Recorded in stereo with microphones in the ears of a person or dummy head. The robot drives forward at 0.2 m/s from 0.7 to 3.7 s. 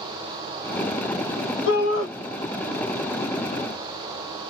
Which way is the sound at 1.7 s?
80° left.